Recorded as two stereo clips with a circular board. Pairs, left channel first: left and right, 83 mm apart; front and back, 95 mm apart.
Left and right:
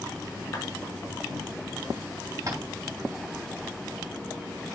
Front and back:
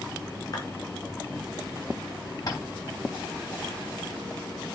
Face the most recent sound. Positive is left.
turn(degrees=-40)